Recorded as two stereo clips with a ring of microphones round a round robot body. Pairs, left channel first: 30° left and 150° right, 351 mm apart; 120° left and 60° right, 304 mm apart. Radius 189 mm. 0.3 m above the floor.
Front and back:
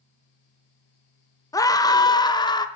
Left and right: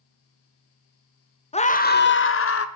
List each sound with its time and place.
1.5 s a scream: 95° left, 1.2 m; by 2.6 s 105° left, 1.7 m